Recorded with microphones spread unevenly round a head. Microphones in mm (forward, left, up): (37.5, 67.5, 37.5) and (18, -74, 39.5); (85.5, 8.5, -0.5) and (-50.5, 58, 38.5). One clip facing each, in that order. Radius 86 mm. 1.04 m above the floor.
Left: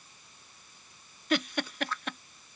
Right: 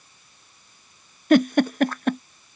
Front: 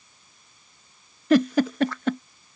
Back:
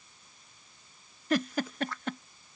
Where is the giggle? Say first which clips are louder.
Right 14 dB, front 11 dB; 50° right.